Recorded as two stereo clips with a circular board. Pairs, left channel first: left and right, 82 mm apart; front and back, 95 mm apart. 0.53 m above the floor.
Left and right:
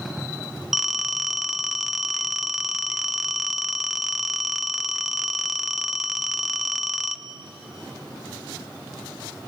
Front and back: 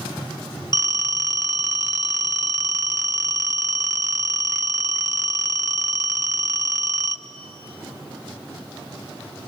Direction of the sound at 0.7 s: 175° right.